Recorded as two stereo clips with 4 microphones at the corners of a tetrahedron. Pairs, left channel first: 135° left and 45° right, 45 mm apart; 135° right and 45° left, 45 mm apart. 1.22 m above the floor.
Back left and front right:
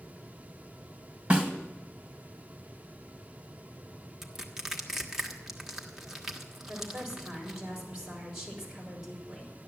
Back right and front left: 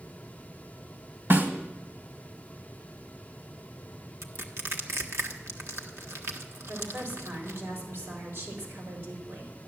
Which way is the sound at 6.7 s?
35° left.